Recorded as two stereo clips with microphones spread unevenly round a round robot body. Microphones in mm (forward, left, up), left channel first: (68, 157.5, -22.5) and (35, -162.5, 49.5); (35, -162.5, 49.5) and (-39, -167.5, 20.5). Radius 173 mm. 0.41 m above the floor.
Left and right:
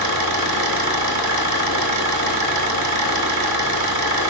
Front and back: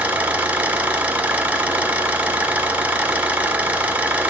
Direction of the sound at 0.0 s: 130° right.